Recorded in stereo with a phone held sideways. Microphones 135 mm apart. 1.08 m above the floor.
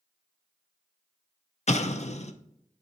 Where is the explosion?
55° left (ahead or behind), 0.6 m.